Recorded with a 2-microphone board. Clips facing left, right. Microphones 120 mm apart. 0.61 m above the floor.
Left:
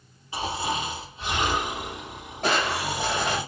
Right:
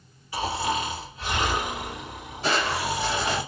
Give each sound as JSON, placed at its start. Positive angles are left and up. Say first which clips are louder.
{"t": 0.3, "sound": "snoring", "louder": "right 2 dB", "side_deg": 25, "distance_m": 1.8}
{"t": 2.4, "sound": "crushing", "louder": "even", "side_deg": 60, "distance_m": 1.5}